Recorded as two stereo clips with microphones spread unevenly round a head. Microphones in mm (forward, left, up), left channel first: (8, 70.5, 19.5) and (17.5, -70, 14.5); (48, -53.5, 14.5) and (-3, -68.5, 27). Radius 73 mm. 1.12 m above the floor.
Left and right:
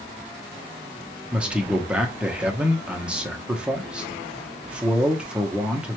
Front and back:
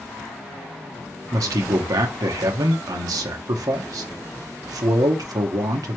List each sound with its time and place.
1.3 s a man speaking: 170° right, 0.7 m